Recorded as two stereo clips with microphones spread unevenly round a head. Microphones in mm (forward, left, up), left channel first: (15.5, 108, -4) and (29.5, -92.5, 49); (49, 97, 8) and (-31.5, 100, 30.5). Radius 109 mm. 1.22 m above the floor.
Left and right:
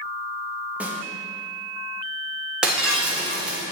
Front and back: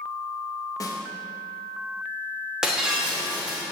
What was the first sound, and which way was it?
A snare drum, 5° left.